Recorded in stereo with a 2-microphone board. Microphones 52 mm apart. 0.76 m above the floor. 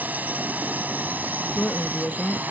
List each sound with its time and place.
0.0 s a drone: 30° right (ahead or behind)
1.5 s a woman speaking: 35° left (ahead or behind)